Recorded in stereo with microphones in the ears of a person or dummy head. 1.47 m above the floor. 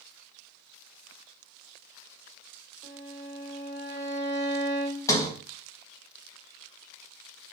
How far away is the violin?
About 1.7 m.